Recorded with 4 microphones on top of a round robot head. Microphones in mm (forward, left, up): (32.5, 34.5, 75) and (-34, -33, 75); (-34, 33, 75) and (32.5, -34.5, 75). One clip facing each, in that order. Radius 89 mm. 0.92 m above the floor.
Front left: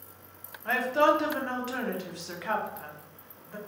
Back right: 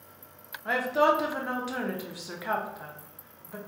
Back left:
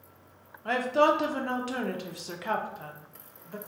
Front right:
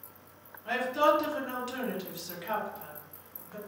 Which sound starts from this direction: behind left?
A woman speaking, at 0.7 s.